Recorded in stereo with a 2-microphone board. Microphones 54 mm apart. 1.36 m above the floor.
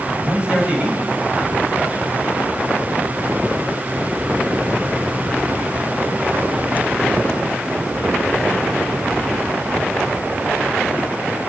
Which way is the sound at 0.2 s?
20° right (ahead or behind).